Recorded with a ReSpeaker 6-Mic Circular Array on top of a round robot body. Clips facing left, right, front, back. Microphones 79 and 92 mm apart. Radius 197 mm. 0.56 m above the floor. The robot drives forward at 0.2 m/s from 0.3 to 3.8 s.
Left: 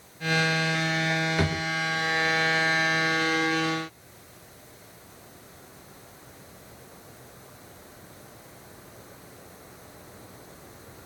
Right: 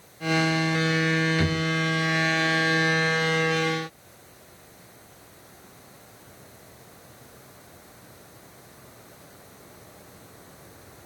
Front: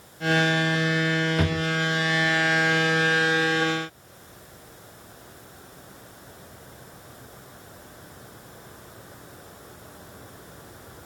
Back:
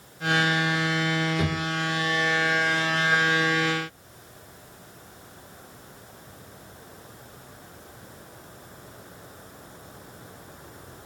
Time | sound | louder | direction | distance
1.4 | a drawer | right 2 dB, front 2 dB | 35° left | 1.1 m